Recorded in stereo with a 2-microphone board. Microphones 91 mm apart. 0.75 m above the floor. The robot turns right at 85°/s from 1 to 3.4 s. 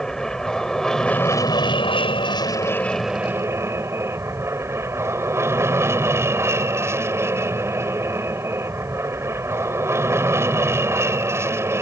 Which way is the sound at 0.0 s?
5° left.